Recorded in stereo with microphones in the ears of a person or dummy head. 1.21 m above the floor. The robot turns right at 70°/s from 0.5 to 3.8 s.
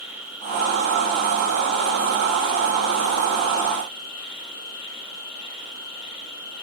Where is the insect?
165° right, 4.5 m; by 6.6 s 65° left, 4.5 m.